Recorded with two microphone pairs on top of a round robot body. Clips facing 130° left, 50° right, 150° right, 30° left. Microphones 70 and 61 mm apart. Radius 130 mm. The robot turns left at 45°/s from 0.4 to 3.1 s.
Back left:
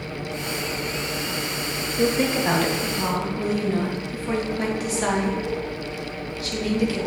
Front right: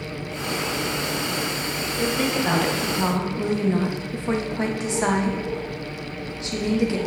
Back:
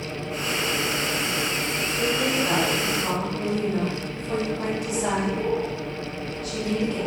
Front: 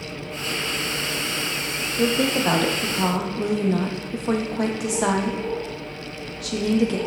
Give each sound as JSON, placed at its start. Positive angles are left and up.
{"t": 2.0, "sound": "a woman speaking", "azimuth_deg": 65, "distance_m": 1.2}